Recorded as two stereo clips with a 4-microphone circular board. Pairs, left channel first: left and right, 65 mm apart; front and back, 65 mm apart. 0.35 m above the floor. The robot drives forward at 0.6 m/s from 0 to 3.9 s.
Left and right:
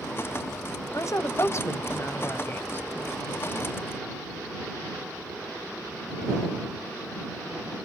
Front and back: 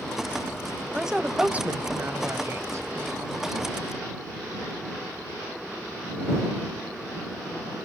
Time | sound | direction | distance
0.9 | a woman speaking | 95° left | 1.2 m